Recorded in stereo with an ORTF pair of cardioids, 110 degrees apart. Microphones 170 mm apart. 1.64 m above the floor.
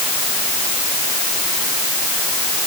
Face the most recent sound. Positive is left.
No sound to turn to.